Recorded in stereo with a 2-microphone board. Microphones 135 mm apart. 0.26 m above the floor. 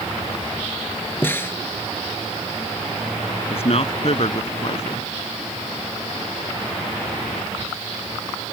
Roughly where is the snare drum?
Centre.